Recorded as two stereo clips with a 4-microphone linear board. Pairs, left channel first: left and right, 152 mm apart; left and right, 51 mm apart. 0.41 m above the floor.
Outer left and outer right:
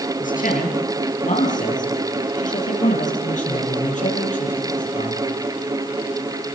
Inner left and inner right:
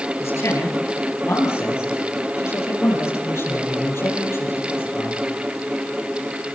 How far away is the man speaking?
About 7.5 m.